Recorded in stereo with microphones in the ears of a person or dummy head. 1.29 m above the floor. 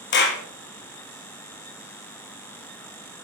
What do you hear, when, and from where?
0.1 s a clap: 50° left (ahead or behind), 1.2 m